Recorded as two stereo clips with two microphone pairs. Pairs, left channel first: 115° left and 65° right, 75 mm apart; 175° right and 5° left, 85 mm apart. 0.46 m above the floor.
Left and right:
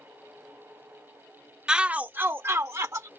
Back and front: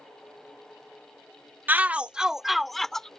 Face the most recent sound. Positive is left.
turn(degrees=-95)